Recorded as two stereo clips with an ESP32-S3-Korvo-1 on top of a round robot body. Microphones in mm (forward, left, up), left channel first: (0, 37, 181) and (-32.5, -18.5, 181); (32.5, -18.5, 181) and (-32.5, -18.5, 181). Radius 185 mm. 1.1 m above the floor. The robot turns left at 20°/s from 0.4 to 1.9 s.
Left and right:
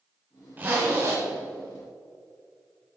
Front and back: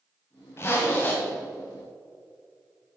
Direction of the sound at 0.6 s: 55° right.